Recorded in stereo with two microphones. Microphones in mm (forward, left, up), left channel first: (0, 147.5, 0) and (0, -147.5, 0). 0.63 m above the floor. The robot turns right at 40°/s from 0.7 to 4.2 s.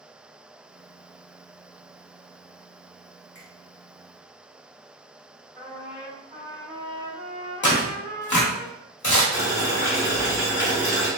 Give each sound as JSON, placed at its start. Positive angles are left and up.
{"t": 3.4, "sound": "a finger snap", "side_deg": -50, "distance_m": 1.5}
{"t": 5.5, "sound": "a trumpet", "side_deg": -20, "distance_m": 2.0}
{"t": 7.6, "sound": "tearing paper", "side_deg": 80, "distance_m": 1.0}
{"t": 9.3, "sound": "boiling", "side_deg": 40, "distance_m": 1.2}